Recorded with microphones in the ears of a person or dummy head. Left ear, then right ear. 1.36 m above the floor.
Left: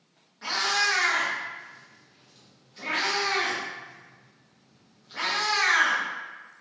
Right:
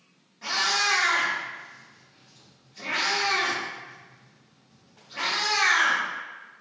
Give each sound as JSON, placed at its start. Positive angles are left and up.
{"t": 0.4, "sound": "a cat meowing", "side_deg": 10, "distance_m": 1.0}